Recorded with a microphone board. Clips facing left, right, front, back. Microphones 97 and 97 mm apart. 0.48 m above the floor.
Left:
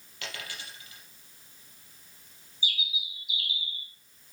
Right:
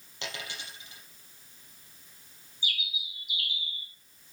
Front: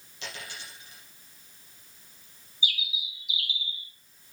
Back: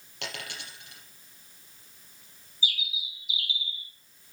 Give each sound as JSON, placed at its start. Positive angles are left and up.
{"t": 0.2, "sound": "a dropped coin", "azimuth_deg": -155, "distance_m": 5.0}
{"t": 2.6, "sound": "a bird", "azimuth_deg": -125, "distance_m": 4.0}